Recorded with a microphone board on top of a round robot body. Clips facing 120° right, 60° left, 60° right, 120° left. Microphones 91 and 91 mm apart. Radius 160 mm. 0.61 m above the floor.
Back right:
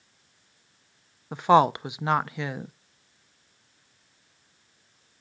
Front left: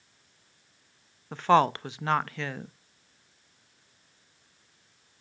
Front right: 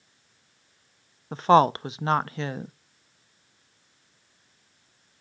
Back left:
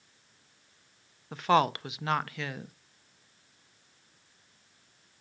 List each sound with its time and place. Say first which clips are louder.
1.3 s a woman speaking: back right 3 dB, front right 7 dB; 60° right, 0.6 m